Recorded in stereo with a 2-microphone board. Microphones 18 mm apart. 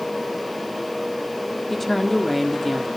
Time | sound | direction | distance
1.7 | a woman speaking | 10° left (ahead or behind) | 1.4 m